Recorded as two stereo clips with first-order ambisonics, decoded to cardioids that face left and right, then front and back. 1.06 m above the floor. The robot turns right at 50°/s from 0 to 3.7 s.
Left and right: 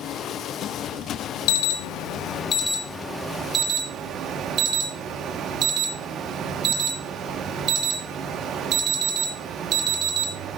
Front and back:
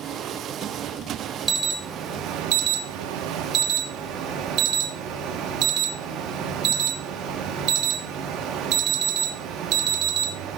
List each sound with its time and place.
1.5 s an alarm: 105° left, 1.2 m; by 10.6 s 140° right, 1.2 m